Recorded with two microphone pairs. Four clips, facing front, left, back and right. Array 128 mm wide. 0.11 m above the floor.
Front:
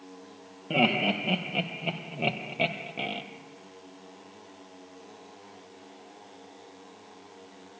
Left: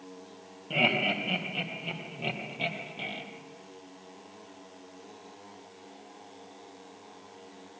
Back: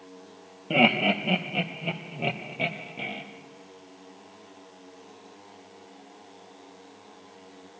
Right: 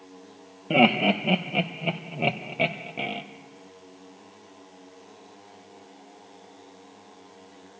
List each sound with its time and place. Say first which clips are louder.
0.7 s laughter: right 9 dB, back 3 dB; 100° right, 2.5 m; by 3.2 s 55° right, 2.5 m